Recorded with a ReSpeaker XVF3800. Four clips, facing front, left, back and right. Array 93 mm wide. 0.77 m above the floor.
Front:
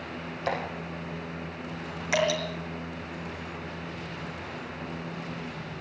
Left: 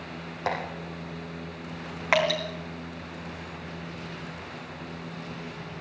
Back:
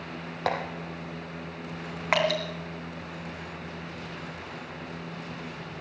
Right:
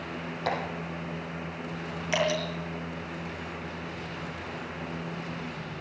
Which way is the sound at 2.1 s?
130° left.